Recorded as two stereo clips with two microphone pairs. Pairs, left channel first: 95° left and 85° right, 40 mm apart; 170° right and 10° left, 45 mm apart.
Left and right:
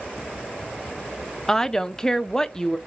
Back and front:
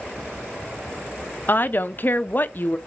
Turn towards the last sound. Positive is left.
turn(degrees=165)